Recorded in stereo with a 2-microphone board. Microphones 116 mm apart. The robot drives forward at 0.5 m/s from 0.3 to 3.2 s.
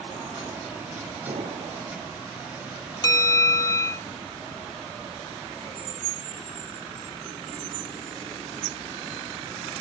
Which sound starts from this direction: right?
An explosion, at 1.3 s.